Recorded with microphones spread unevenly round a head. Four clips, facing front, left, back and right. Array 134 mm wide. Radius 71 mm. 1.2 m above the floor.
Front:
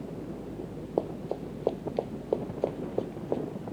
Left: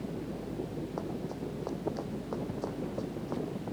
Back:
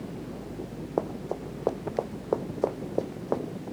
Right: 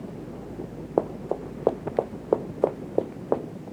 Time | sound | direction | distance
1.0 | running footsteps | 85° right | ?